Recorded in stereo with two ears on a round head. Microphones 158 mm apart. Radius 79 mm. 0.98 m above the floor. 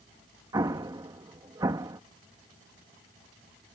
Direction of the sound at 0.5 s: 20° right (ahead or behind).